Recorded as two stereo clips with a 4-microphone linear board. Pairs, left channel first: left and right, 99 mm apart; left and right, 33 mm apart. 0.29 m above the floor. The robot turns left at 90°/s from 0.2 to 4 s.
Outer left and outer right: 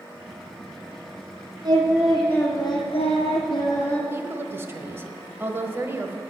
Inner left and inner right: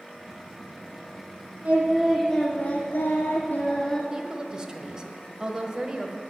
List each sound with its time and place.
1.6 s singing: 135° right, 2.5 m; by 4.0 s 10° left, 2.5 m
4.1 s a woman speaking: 25° right (ahead or behind), 1.1 m